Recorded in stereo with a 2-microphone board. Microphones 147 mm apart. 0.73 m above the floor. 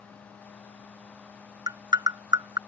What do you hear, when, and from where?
1.7 s tapping: 25° right (ahead or behind)